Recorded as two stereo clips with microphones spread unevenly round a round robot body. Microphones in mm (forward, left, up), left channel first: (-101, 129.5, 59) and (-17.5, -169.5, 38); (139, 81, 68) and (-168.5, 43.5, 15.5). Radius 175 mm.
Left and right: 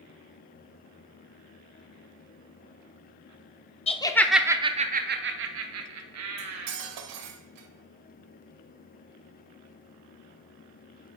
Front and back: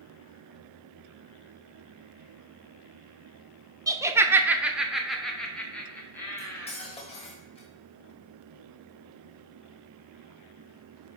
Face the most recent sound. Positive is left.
turn(degrees=-70)